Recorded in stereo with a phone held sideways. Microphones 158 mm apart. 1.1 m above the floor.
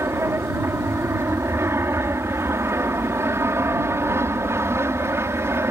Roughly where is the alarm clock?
No alarm clock in this recording.